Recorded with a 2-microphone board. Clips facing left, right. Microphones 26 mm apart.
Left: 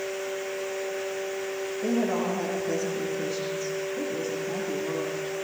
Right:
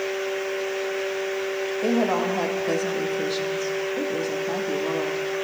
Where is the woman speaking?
75° right (ahead or behind), 7 m.